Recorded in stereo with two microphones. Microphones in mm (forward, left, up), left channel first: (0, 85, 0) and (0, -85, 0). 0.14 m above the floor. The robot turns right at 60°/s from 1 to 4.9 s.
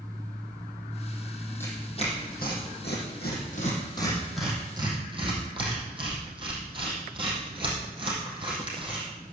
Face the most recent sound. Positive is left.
turn(degrees=-30)  # may be behind; listen again after turning